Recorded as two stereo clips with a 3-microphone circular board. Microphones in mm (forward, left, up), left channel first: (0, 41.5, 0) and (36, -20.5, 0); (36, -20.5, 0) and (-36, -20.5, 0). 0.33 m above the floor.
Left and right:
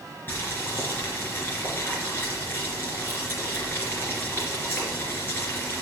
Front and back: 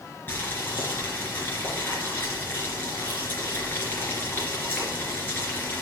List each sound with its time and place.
0.3 s boiling: 60° left, 3 m